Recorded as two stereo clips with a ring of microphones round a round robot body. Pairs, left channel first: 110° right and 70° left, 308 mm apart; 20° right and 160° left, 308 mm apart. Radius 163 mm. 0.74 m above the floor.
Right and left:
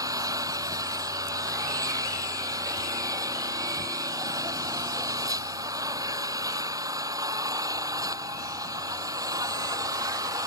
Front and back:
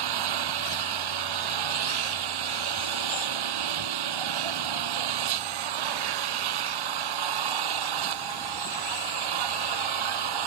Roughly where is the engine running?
Behind left.